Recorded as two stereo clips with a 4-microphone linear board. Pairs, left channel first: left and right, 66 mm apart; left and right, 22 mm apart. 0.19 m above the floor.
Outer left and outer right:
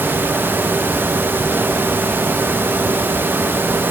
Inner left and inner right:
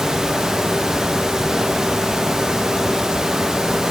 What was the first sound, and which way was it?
Only background noise.